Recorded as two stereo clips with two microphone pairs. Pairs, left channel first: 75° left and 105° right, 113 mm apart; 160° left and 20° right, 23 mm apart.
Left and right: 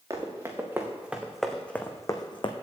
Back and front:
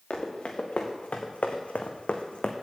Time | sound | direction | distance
0.1 | running footsteps | 160° right | 2.5 m